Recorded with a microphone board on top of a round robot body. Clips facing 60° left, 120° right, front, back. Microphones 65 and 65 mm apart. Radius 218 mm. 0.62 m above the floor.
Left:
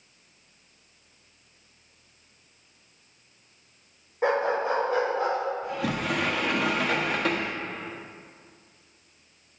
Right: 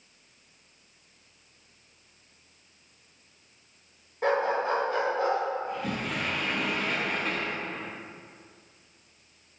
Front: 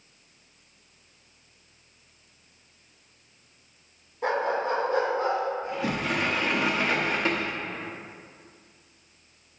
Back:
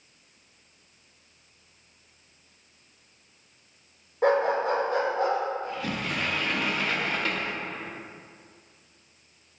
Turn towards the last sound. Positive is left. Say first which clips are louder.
# left 3 dB, front 3 dB
turn(degrees=70)